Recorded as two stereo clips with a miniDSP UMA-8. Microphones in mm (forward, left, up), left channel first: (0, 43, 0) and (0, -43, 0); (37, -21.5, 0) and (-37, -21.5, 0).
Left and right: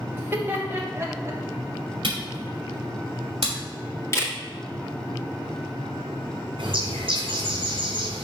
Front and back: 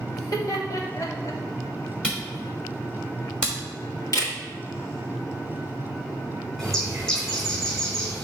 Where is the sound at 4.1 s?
35° left, 1.8 m.